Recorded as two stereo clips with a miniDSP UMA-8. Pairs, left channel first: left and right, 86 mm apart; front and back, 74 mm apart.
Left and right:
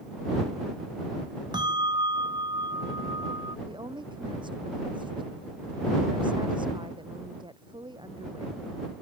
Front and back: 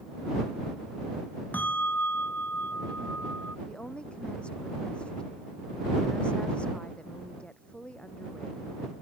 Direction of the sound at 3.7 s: 75° right.